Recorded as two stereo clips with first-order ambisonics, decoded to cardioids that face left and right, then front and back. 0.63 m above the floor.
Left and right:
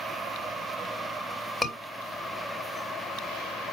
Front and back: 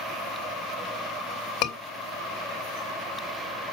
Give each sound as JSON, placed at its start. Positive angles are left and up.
{"t": 1.6, "sound": "a scream", "azimuth_deg": 15, "distance_m": 2.5}